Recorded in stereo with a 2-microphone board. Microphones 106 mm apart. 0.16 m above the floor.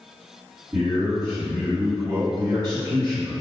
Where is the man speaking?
40° right (ahead or behind), 1.8 m.